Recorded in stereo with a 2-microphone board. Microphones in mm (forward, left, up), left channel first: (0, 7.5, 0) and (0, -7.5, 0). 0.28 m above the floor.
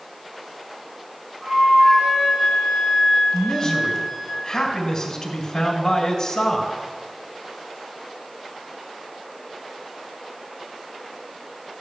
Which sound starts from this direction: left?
A man speaking, at 3.3 s.